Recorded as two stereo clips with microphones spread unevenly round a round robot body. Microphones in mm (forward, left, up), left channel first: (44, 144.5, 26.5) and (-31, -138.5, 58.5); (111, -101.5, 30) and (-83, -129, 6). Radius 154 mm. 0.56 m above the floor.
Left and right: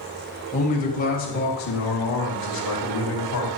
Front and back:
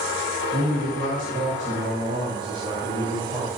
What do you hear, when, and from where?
0.5 s a man speaking: 140° left, 3 m; by 3.6 s 105° left, 2.5 m